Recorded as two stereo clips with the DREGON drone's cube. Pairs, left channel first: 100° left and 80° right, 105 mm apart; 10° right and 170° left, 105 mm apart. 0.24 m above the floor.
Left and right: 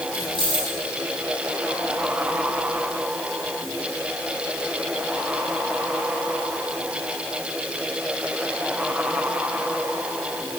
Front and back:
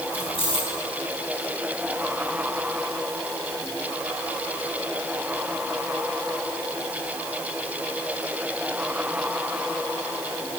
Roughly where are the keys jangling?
Ahead right.